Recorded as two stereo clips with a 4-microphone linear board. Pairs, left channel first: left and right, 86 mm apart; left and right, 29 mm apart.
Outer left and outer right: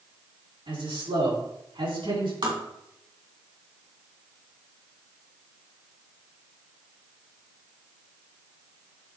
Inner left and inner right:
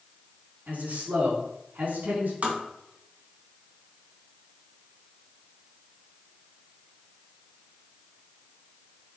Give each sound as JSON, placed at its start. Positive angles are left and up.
{"t": 0.7, "sound": "a man speaking", "side_deg": -75, "distance_m": 4.5}
{"t": 2.4, "sound": "tapping", "side_deg": -60, "distance_m": 2.5}